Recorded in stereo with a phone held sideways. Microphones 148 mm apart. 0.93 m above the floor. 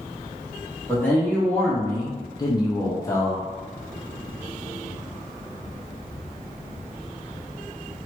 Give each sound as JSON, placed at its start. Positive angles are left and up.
{"t": 0.9, "sound": "a man speaking", "side_deg": 10, "distance_m": 0.9}